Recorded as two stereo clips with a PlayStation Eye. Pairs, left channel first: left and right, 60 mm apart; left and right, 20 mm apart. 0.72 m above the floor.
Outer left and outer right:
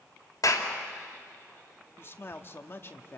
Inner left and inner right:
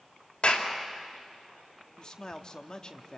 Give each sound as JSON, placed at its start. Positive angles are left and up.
{"t": 0.4, "sound": "a clap", "side_deg": 75, "distance_m": 3.0}
{"t": 2.0, "sound": "a man speaking", "side_deg": 40, "distance_m": 1.3}